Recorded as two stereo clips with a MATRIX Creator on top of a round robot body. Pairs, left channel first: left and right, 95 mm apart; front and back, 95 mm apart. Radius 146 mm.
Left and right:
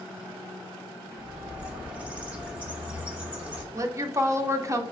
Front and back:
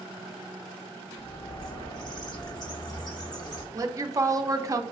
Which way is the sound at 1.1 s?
20° right.